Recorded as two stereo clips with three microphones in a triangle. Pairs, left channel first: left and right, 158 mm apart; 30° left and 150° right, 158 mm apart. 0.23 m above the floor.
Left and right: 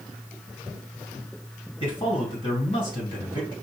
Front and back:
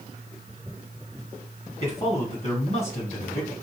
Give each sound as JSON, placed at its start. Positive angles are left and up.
{"t": 1.8, "sound": "a man speaking", "azimuth_deg": 50, "distance_m": 2.0}